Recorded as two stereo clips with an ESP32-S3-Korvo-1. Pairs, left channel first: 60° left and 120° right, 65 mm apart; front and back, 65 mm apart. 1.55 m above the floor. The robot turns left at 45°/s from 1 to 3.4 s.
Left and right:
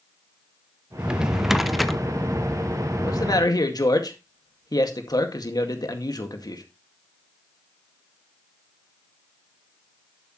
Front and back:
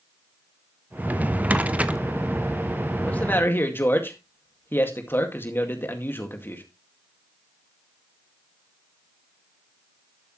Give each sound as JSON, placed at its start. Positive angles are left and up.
{"t": 1.0, "sound": "a drawer", "azimuth_deg": -175, "distance_m": 0.7}
{"t": 3.0, "sound": "a man speaking", "azimuth_deg": 75, "distance_m": 2.0}